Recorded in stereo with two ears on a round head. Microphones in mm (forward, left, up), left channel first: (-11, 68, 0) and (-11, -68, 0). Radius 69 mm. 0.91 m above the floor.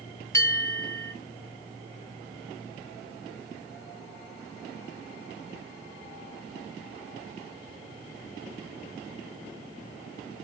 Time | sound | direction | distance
0.3 | a bell | 20° left (ahead or behind) | 2.5 m